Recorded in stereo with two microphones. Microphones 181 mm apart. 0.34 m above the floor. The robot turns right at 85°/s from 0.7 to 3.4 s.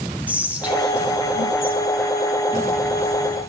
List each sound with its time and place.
0.3 s whispering: 10° right (ahead or behind), 3 m; by 3.5 s 35° right (ahead or behind), 3 m